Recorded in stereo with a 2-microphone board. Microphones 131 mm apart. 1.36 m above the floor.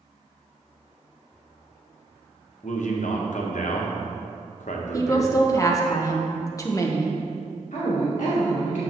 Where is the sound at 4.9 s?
25° left (ahead or behind), 0.9 m.